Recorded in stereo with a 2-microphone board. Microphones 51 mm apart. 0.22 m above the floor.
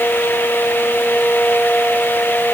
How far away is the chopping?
No chopping in this recording.